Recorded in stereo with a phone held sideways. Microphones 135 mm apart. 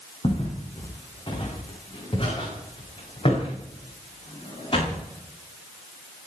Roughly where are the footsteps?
Left.